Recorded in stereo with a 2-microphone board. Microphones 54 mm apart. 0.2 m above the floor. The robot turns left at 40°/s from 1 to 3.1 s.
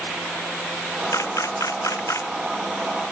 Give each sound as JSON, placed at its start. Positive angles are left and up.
{"t": 1.1, "sound": "a camera shutter", "azimuth_deg": 110}